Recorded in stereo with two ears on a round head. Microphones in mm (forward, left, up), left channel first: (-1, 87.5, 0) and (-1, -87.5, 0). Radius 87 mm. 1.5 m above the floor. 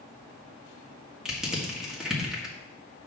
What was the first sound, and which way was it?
Crushing, 5° right (ahead or behind).